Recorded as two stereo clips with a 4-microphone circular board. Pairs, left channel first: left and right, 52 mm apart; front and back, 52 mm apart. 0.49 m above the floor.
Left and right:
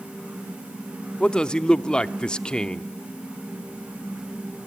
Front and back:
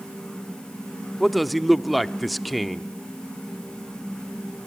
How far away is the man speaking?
About 0.7 m.